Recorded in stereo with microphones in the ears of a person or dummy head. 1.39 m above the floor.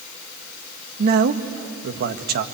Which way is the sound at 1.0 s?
50° right (ahead or behind).